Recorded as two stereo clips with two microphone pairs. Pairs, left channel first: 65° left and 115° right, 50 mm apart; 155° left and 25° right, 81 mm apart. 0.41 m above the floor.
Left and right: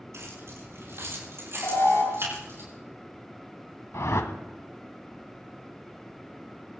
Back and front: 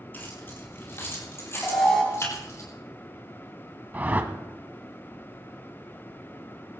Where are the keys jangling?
135° right, 6 m; by 2.6 s 150° right, 8 m.